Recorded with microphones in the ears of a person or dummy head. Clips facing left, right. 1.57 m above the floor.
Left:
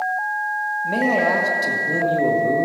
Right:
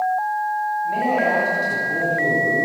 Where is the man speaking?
80° left, 1.9 m.